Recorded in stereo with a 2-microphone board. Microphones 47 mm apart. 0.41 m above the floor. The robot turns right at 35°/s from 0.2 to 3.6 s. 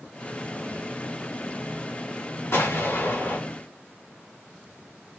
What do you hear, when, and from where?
2.5 s an explosion: 90° left, 2.5 m; by 3.4 s 120° left, 2.5 m